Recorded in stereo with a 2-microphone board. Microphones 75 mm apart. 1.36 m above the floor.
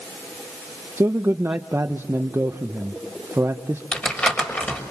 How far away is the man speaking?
About 1.1 m.